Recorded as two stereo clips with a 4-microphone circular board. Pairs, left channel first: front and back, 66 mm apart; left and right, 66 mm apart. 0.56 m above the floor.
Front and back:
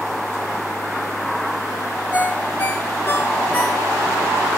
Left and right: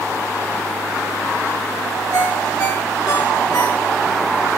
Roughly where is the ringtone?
Ahead left.